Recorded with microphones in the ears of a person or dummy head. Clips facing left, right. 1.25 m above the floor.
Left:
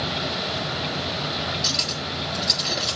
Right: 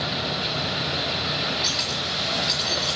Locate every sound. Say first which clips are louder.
1.6 s cutlery clinking: left 1 dB; 15° left (ahead or behind), 0.8 m